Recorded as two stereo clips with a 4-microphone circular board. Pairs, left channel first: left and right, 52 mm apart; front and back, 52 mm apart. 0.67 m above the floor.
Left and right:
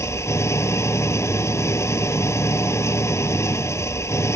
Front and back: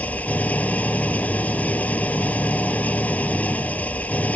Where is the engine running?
60° left.